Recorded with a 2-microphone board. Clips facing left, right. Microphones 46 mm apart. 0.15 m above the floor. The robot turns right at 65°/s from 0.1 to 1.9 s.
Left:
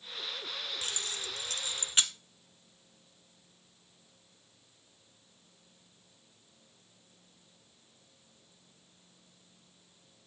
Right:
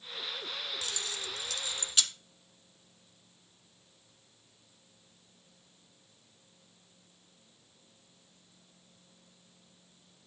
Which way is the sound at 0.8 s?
35° left (ahead or behind).